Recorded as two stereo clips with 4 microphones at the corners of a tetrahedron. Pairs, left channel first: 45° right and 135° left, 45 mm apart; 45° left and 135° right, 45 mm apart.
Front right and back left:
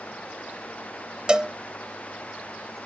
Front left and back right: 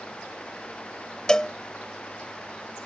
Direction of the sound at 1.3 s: 95° left.